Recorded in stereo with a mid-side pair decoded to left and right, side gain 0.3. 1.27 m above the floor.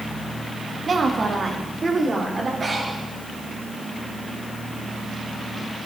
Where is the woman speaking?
55° right, 1.9 m; by 2.5 s 35° right, 4 m.